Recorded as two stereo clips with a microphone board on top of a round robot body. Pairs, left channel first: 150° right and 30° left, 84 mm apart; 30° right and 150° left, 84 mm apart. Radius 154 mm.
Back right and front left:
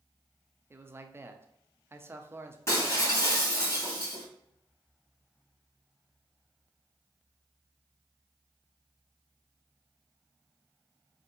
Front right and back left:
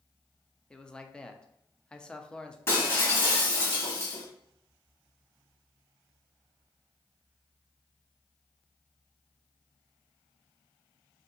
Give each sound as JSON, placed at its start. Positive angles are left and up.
{"t": 0.7, "sound": "a man speaking", "azimuth_deg": 40, "distance_m": 0.8}
{"t": 2.7, "sound": "breaking glass", "azimuth_deg": -90, "distance_m": 1.9}